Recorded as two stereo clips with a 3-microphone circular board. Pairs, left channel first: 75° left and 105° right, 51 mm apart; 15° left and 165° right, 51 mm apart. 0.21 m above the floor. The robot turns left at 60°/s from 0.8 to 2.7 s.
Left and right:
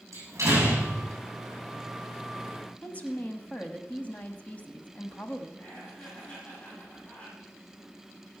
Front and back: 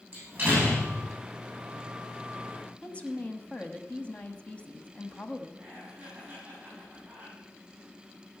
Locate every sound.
0.1 s a door slam: 120° right, 7.5 m; by 1.1 s 135° right, 7.5 m
2.8 s a woman speaking: 50° left, 1.1 m
5.6 s laughter: 130° left, 8 m